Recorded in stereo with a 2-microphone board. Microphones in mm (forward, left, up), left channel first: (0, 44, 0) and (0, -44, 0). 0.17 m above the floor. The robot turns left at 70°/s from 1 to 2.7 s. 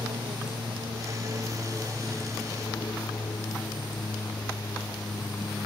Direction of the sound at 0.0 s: 105° right.